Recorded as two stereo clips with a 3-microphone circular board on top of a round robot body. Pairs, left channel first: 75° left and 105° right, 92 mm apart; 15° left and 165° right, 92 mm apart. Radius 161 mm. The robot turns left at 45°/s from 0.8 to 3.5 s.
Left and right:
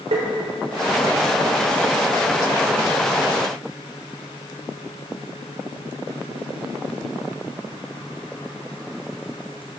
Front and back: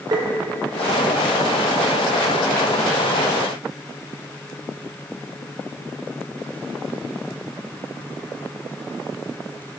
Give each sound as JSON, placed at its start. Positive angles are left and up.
{"t": 0.1, "sound": "tapping", "azimuth_deg": -115, "distance_m": 1.1}